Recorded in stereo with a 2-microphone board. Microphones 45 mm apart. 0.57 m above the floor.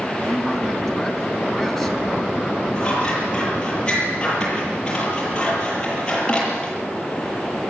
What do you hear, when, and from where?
0.2 s a man speaking: centre (ahead or behind), 4 m
2.8 s scissors: 20° left (ahead or behind), 9 m